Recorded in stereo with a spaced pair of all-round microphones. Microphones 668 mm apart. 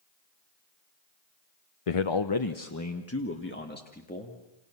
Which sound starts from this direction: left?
A man speaking, at 1.9 s.